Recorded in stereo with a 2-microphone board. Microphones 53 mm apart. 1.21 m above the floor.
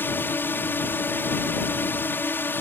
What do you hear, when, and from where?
0.0 s a drone: 40° left (ahead or behind)